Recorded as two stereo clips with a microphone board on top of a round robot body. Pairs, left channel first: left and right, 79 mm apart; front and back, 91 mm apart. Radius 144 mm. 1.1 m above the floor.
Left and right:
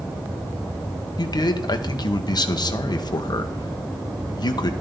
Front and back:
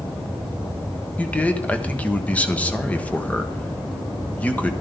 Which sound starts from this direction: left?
A man speaking, at 1.2 s.